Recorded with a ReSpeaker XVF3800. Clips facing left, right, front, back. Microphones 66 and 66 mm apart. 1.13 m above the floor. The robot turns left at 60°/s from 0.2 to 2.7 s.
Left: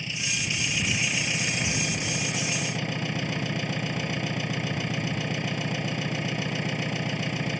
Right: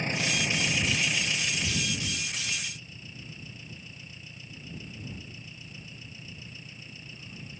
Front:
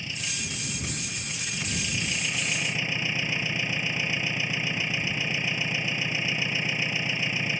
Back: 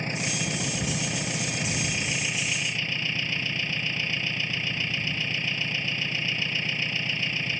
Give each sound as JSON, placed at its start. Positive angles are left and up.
{"t": 0.0, "sound": "an engine running", "azimuth_deg": -135}